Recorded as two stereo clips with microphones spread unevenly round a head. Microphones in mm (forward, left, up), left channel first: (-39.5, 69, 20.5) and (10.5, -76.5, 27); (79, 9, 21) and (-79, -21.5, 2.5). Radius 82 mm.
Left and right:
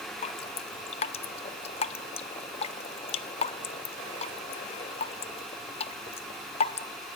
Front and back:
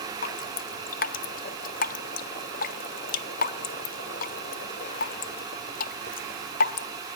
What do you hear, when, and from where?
0.2 s dripping: 50° left, 0.5 m